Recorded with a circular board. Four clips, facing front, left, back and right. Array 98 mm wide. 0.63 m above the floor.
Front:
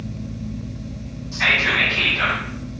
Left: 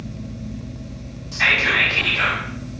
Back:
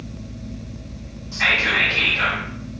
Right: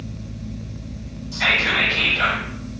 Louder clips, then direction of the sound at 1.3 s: Left 1 dB, even; 95° left.